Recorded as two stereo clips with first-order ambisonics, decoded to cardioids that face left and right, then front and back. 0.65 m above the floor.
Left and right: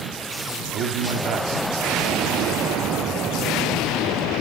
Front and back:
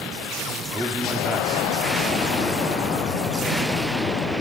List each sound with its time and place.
0.7 s a man speaking: 105° right, 1.4 m